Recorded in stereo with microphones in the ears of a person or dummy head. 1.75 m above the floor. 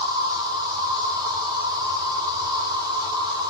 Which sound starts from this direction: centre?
An insect, at 0.0 s.